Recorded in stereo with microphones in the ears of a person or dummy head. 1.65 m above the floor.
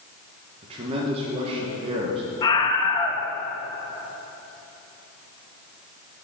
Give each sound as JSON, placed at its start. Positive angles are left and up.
{"t": 0.6, "sound": "a man speaking", "side_deg": -30, "distance_m": 1.4}
{"t": 2.4, "sound": "a scream", "side_deg": 25, "distance_m": 1.5}